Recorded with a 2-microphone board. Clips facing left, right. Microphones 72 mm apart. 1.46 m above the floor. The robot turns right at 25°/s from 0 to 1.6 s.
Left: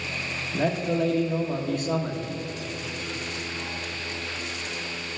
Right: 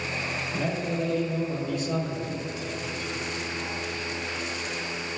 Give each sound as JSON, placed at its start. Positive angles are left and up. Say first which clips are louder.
{"t": 0.5, "sound": "a man speaking", "louder": "left 5 dB", "side_deg": 75, "distance_m": 1.5}